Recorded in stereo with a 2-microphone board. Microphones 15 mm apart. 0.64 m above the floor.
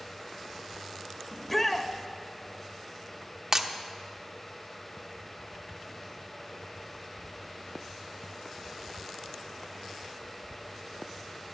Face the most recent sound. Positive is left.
turn(degrees=-30)  # may be behind; listen again after turning